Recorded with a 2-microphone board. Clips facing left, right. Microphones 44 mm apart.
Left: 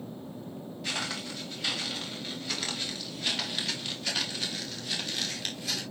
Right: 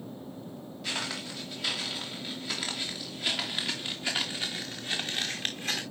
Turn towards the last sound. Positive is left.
turn(degrees=-40)  # may be behind; listen again after turning